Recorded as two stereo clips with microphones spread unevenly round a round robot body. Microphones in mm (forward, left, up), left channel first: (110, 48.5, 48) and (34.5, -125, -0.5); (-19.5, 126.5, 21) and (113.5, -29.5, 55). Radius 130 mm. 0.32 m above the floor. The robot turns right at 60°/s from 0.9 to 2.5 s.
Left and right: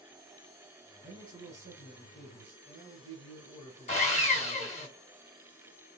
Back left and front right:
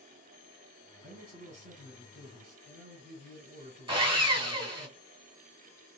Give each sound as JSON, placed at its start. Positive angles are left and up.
{"t": 1.0, "sound": "a man speaking", "azimuth_deg": -100, "distance_m": 1.9}
{"t": 3.9, "sound": "sawing", "azimuth_deg": 15, "distance_m": 1.6}